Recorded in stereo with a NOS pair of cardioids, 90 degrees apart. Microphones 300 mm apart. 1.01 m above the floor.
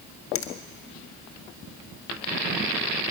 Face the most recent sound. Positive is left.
turn(degrees=45)